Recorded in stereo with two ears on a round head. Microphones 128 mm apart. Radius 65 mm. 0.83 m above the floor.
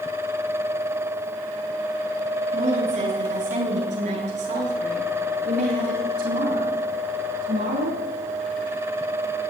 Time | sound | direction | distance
2.5 | a woman speaking | 45° right (ahead or behind) | 9.5 m